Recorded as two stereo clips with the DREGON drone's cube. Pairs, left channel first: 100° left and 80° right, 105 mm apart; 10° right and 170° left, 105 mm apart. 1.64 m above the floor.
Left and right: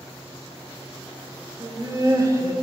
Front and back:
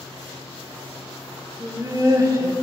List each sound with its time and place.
1.6 s laughter: 135° right, 1.0 m